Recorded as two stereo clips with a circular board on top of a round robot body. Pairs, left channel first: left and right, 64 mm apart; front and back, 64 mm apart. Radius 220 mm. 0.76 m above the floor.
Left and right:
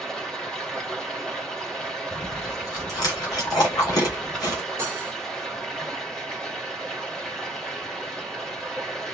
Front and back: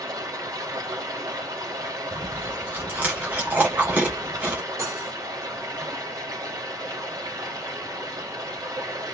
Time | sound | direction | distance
0.0 | running water | 165° left | 3 m
2.1 | chewing | 115° left | 1.7 m
4.8 | cutlery clinking | 140° right | 2 m